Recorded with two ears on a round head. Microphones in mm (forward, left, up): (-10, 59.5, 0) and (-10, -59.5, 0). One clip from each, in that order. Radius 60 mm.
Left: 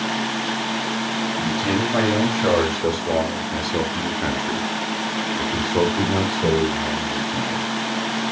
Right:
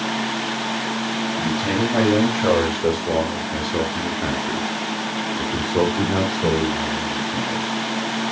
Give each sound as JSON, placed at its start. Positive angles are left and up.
{"t": 1.4, "sound": "a man speaking", "side_deg": 5, "distance_m": 4.5}